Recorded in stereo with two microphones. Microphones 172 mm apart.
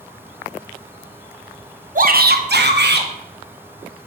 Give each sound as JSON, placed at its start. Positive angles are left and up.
{"t": 1.9, "sound": "a shout", "side_deg": -50, "distance_m": 0.7}